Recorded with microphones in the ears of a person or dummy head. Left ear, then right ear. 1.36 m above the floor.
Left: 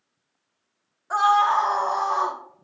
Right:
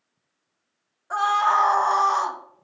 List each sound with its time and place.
1.1 s a scream: centre (ahead or behind), 1.0 m; by 2.4 s 75° right (ahead or behind), 0.9 m